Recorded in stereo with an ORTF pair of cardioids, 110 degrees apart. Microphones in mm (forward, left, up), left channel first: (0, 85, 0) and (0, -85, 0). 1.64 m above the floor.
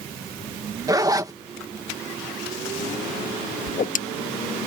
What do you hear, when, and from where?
0.9 s a zipper: 20° right
3.7 s a whoosh: 50° left